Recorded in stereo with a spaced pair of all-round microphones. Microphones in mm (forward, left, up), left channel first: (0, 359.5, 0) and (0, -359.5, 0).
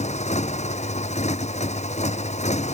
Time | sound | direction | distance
0.0 | a motorcycle | 10° left (ahead or behind) | ?